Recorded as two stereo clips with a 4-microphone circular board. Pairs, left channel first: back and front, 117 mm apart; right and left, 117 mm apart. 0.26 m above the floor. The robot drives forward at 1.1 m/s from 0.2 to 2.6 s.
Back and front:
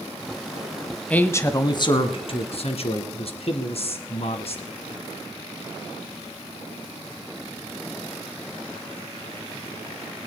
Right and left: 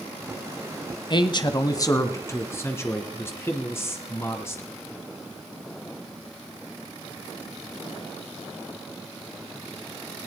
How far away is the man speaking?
About 1.2 m.